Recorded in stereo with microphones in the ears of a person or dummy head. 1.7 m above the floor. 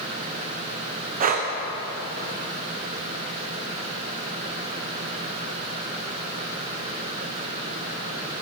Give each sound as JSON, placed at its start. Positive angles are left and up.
{"t": 1.2, "sound": "breathing", "side_deg": -45, "distance_m": 0.7}